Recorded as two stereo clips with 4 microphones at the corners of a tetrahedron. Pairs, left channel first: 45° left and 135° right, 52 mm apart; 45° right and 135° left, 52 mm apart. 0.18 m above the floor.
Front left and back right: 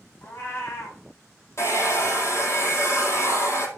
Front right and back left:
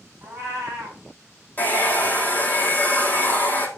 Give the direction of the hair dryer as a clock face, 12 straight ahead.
12 o'clock.